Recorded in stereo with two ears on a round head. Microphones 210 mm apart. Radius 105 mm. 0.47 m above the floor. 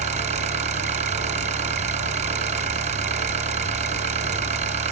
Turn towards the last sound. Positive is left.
turn(degrees=-30)  # may be behind; listen again after turning